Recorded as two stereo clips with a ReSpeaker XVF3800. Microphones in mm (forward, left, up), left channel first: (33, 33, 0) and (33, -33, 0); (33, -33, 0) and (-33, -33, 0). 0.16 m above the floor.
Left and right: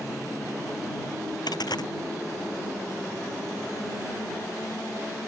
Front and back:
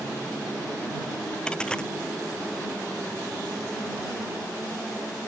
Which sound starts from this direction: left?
A dropped coin, at 1.5 s.